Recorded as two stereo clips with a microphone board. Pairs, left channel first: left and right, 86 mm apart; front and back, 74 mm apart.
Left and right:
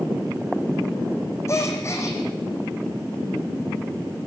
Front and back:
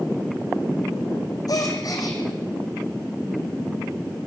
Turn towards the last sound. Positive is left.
turn(degrees=35)